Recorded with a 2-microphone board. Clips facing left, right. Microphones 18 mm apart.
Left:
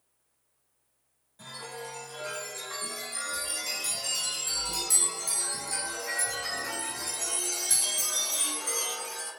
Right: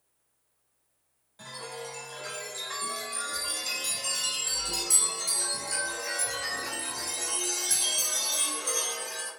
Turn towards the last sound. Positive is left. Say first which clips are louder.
# right 1 dB
turn(degrees=-25)  # may be behind; listen again after turning